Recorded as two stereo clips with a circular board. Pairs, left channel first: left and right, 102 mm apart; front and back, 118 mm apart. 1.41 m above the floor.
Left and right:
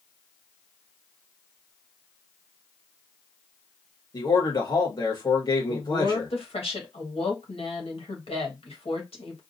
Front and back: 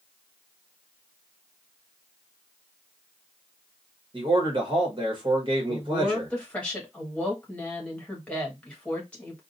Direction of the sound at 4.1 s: 135° left.